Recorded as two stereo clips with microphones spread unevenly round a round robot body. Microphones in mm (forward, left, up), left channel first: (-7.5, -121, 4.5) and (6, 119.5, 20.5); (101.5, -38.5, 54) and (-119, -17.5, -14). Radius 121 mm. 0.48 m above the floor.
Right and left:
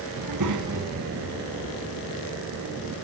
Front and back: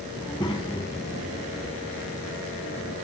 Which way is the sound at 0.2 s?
75° left.